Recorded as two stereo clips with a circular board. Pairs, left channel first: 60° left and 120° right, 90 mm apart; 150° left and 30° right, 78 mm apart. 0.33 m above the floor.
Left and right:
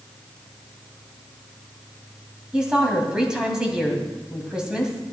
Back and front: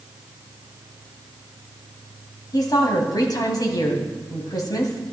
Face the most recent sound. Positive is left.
turn(degrees=160)